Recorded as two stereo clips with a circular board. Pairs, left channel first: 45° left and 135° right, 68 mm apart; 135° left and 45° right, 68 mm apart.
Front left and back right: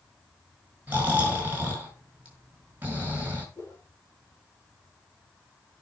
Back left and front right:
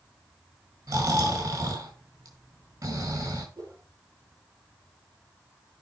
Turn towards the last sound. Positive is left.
turn(degrees=-10)